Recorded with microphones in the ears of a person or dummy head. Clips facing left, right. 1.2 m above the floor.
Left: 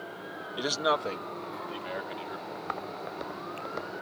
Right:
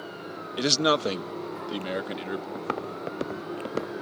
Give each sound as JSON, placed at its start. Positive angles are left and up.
{"t": 0.6, "sound": "a man speaking", "side_deg": -30}
{"t": 2.5, "sound": "footsteps", "side_deg": -50}